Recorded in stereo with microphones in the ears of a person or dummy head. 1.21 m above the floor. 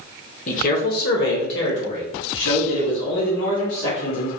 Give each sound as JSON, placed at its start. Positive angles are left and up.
{"t": 0.5, "sound": "a man speaking", "side_deg": 40, "distance_m": 1.0}